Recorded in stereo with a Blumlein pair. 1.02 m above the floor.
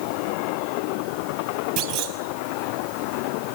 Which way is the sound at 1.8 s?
45° right.